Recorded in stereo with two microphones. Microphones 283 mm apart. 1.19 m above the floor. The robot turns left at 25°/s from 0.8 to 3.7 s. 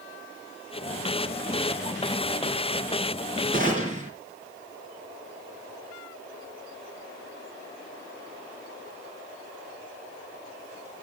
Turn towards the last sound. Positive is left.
turn(degrees=-30)  # may be behind; listen again after turning